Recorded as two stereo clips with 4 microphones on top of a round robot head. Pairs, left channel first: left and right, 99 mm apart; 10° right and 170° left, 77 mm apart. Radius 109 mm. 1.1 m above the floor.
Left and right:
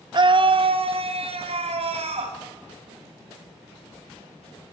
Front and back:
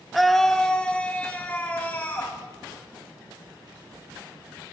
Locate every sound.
0.1 s a scream: 100° right, 0.9 m; by 2.4 s 80° right, 2.5 m